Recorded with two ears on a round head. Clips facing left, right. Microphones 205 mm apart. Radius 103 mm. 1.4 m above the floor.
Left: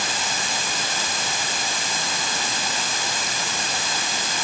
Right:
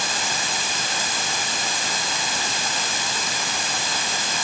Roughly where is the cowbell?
No cowbell in this recording.